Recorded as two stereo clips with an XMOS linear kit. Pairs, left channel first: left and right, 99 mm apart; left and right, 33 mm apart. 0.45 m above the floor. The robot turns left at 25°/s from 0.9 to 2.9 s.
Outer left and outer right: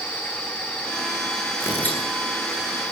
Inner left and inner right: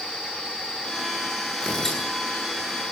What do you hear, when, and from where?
1.6 s tearing paper: 25° left (ahead or behind), 9 m; by 2.0 s 15° left (ahead or behind), 9 m